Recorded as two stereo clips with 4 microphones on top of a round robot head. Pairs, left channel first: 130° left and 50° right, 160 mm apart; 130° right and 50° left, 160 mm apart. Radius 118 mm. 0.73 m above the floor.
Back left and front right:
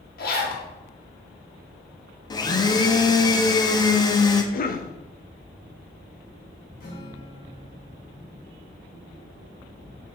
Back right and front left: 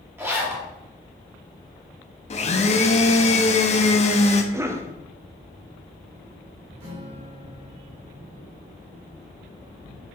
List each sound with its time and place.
0.2 s a zipper: 125° left, 2 m
2.3 s a blender: 170° right, 0.9 m
4.5 s a cough: 120° left, 0.7 m
6.8 s a guitar: 95° left, 3.5 m